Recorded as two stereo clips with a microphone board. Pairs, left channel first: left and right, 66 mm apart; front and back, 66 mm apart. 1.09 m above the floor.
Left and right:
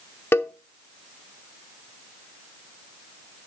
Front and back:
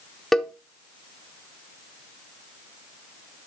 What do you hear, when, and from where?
0.3 s a cowbell: 80° left, 0.8 m